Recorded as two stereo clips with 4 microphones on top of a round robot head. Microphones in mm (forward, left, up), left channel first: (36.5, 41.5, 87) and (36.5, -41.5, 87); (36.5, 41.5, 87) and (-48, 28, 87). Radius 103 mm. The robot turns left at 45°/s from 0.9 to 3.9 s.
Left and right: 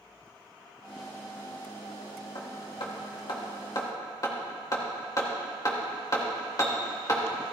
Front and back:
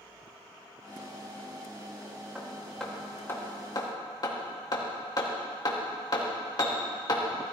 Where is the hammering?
115° left, 2.5 m; by 7.5 s 45° left, 2.5 m.